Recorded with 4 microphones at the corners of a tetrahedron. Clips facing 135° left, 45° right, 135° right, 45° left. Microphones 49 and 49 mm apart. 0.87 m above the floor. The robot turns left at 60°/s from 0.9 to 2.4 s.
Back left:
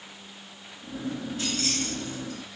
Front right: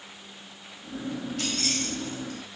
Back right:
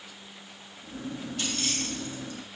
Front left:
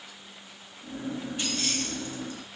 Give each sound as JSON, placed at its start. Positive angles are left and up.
{"t": 1.4, "sound": "keys jangling", "azimuth_deg": -25, "distance_m": 3.0}